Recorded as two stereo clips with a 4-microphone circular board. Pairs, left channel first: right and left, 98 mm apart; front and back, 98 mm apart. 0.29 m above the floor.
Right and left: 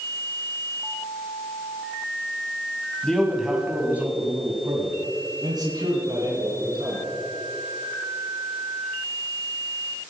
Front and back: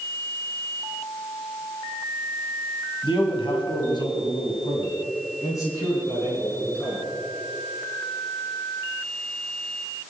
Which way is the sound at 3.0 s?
10° right.